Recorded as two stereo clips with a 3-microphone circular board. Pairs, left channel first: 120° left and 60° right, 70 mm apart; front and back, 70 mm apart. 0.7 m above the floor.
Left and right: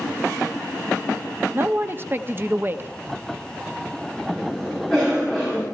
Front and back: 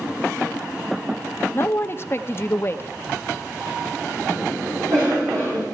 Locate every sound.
1.5 s a man speaking: 25° right, 0.7 m
4.3 s a cough: 150° right, 6 m